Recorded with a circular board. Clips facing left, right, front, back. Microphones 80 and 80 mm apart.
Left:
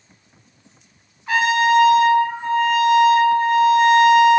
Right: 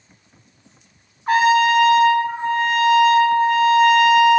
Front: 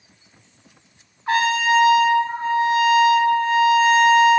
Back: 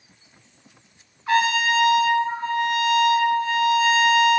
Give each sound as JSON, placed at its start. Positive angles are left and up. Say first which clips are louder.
{"t": 1.3, "sound": "a trumpet", "louder": "right 2 dB, front 2 dB", "azimuth_deg": -50, "distance_m": 1.3}